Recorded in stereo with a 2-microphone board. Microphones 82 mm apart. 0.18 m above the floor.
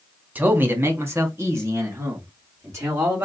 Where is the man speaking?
20° right (ahead or behind), 1.1 m; by 3.3 s 35° right (ahead or behind), 3.5 m.